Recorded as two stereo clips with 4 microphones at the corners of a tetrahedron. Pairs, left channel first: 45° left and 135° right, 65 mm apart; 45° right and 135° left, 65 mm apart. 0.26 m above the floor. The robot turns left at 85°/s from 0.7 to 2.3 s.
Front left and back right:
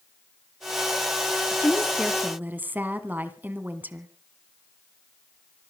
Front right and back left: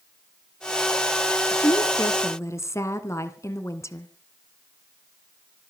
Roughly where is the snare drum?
I don't hear a snare drum.